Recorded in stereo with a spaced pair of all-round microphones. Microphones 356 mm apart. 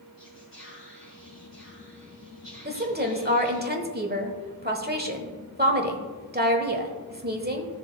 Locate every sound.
0.2 s whispering: 30° left (ahead or behind), 1.7 m
2.6 s a woman speaking: 25° right (ahead or behind), 1.2 m